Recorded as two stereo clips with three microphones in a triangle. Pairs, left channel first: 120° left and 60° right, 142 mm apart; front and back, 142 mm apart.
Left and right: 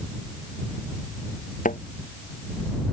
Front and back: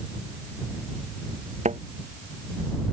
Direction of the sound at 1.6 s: 145° left.